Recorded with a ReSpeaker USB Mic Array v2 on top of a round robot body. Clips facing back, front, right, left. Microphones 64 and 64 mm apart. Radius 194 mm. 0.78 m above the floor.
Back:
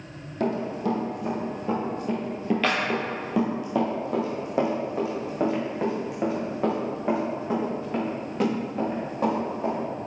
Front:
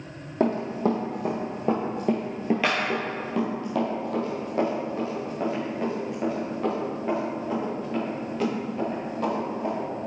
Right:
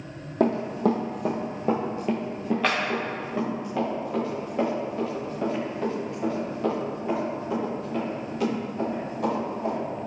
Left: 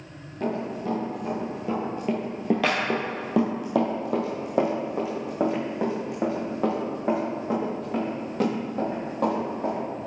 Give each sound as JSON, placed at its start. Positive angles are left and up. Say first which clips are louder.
{"t": 0.4, "sound": "running footsteps", "louder": "front 3 dB, right 6 dB", "azimuth_deg": -60, "distance_m": 1.6}